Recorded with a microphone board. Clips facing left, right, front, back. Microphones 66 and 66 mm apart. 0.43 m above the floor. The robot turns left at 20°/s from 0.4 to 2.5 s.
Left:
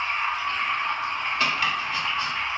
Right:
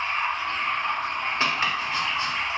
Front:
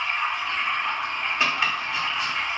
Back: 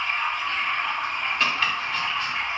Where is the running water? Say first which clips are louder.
Even, even; 85° right, 2 m; by 2.6 s 125° right, 2 m.